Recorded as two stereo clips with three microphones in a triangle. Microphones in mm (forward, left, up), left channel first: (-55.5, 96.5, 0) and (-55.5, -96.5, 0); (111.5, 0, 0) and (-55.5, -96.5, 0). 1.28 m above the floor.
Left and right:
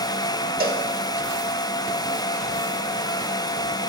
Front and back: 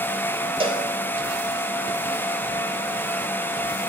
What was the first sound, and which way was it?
A cowbell, 95° right.